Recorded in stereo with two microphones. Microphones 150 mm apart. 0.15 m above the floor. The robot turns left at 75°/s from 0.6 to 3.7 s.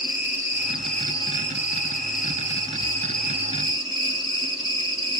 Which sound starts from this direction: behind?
An insect, at 0.0 s.